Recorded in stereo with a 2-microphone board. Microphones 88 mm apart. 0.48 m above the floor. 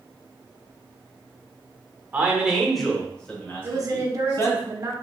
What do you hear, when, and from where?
2.1 s a man speaking: 20° right (ahead or behind), 1.0 m; by 4.6 s 35° left (ahead or behind), 1.9 m
3.6 s a woman speaking: 40° right (ahead or behind), 0.9 m